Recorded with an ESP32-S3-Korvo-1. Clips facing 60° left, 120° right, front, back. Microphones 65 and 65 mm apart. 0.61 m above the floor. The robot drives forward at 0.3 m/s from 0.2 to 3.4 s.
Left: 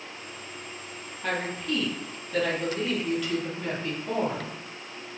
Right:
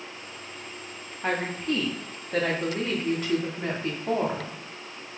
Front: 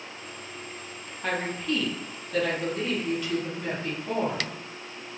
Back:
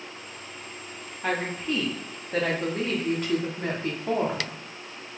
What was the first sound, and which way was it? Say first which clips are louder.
A woman speaking: right 2 dB, back 1 dB; 100° right.